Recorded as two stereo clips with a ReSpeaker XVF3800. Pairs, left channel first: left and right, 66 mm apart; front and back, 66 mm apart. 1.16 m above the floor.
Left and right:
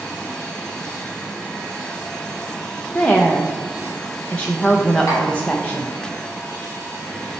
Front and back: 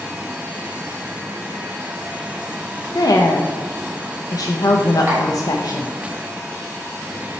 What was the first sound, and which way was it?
A woman speaking, 15° left.